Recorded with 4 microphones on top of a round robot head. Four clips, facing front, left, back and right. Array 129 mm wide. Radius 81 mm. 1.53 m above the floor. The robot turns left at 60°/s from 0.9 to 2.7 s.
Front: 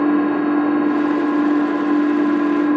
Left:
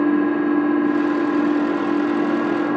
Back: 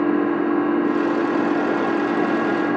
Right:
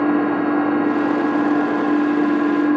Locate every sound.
0.0 s an engine running: 80° right, 2.5 m; by 2.8 s 175° left, 2.5 m